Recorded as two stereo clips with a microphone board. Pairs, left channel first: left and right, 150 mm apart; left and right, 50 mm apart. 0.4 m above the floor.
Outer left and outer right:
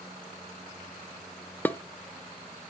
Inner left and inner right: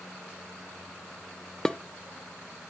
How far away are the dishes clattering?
About 0.6 m.